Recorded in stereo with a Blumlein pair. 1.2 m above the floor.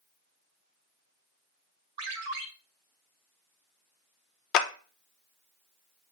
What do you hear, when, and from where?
2.0 s a ringtone: 50° right, 1.6 m
4.5 s a clap: 35° left, 1.0 m